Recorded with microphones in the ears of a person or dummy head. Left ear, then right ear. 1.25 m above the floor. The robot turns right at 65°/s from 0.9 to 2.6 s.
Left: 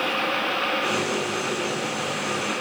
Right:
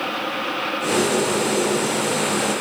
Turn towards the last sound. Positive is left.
No sound to turn to.